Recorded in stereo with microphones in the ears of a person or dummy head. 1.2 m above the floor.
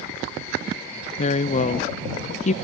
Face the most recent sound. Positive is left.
turn(degrees=40)  # may be behind; listen again after turning